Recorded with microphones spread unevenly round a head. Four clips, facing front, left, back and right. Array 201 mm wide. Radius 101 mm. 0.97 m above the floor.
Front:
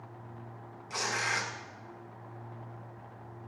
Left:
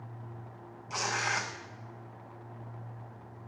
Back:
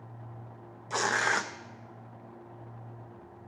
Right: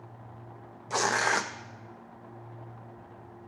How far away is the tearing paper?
About 0.6 m.